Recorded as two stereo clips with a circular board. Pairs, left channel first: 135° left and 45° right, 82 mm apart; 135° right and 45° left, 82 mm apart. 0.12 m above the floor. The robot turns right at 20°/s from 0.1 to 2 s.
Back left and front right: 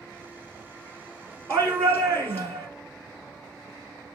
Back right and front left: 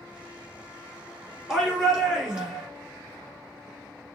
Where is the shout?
35° right, 1.4 m; by 2.7 s 25° right, 1.4 m.